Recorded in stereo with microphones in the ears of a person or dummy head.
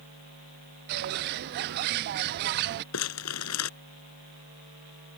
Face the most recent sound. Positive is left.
turn(degrees=75)  # may be behind; listen again after turning